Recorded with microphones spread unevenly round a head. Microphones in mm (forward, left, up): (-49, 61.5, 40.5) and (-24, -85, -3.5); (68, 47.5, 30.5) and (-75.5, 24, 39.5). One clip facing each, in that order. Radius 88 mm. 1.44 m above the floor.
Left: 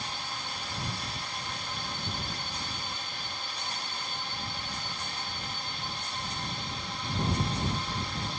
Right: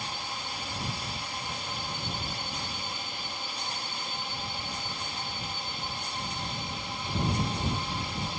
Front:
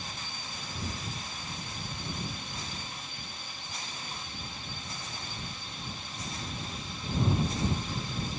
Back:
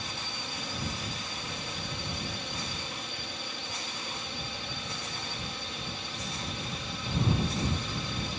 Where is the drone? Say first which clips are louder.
Right 1 dB, back 3 dB; 155° right.